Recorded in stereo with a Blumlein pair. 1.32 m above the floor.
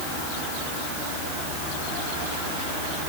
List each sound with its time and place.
Only background noise.